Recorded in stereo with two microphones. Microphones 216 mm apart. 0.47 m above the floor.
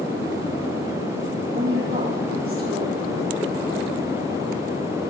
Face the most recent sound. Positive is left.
turn(degrees=-75)  # may be behind; listen again after turning